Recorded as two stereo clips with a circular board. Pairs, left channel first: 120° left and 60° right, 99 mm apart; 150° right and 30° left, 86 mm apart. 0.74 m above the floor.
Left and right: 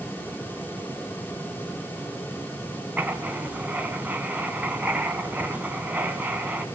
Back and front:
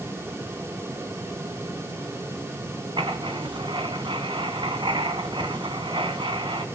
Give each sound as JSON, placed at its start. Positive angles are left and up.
{"t": 3.0, "sound": "writing", "azimuth_deg": 15, "distance_m": 2.0}